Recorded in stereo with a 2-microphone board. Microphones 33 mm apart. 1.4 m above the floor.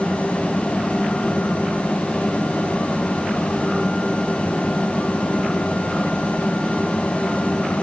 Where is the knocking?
No knocking in this recording.